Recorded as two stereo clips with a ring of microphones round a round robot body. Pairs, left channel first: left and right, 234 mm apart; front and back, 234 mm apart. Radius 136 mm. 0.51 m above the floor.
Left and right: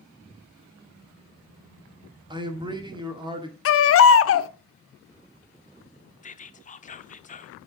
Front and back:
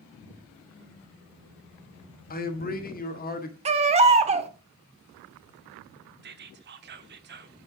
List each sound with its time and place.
2.3 s a man speaking: 25° right, 1.6 m
3.6 s a baby crying: 115° left, 0.8 m
6.2 s whispering: 145° left, 1.1 m